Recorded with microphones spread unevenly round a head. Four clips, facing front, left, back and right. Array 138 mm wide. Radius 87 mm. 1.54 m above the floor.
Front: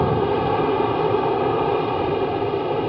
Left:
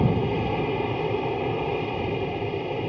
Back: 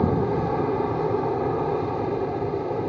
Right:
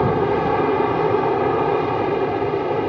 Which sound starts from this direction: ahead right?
An aircraft, at 0.0 s.